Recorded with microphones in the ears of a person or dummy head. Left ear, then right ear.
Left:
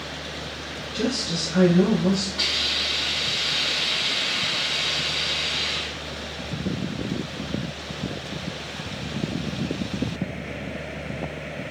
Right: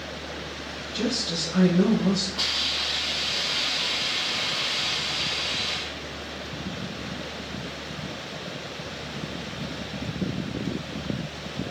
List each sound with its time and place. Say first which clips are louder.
0.9 s a woman speaking: left 1 dB; 5° right (ahead or behind), 1.2 m
2.4 s a hiss: left 3 dB; 70° right (ahead or behind), 1.9 m